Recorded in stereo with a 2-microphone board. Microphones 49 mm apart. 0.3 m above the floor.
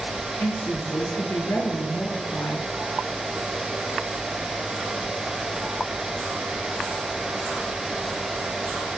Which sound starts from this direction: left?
A woman speaking, at 0.4 s.